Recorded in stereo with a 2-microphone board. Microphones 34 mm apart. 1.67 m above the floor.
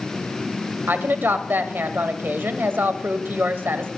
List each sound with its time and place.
0.9 s a woman speaking: 80° right, 1.0 m